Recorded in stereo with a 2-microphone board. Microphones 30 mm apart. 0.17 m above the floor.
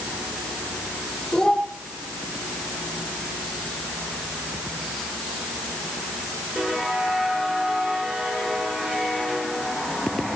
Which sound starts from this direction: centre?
A child speaking, at 1.3 s.